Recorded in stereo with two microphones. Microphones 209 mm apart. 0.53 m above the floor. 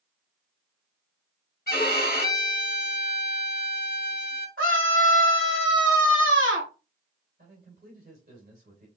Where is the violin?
50° left (ahead or behind), 1.0 m.